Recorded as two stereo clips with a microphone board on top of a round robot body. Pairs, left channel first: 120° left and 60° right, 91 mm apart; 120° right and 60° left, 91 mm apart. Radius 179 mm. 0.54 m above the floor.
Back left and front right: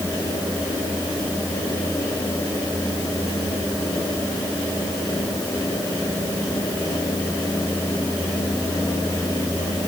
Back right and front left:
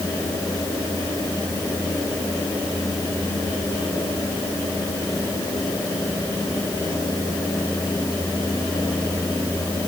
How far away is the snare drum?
No snare drum in this recording.